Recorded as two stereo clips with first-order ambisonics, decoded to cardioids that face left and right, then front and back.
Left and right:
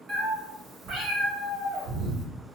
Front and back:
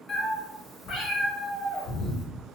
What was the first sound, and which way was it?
A cat meowing, 35° right.